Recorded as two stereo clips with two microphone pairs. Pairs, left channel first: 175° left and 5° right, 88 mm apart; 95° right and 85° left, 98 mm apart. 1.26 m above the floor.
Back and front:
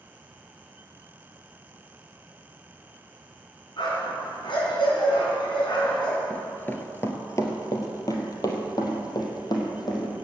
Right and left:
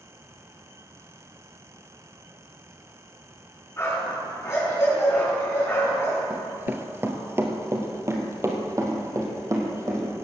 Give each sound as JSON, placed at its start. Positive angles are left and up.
{"t": 3.8, "sound": "a dog barking", "azimuth_deg": -155, "distance_m": 5.5}
{"t": 6.3, "sound": "running footsteps", "azimuth_deg": 130, "distance_m": 1.3}